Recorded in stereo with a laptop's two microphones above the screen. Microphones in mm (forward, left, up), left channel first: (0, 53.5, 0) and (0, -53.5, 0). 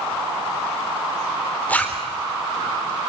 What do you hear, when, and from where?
1.7 s a zipper: 15° left (ahead or behind), 3.5 m